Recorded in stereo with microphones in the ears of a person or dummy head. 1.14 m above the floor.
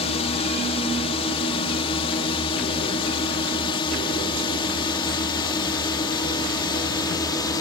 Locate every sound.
0.0 s a drone: 30° left (ahead or behind); by 7.6 s 20° left (ahead or behind)